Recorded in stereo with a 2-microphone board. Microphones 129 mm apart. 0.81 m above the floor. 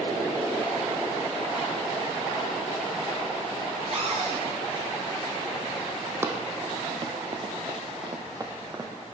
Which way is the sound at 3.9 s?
50° right (ahead or behind).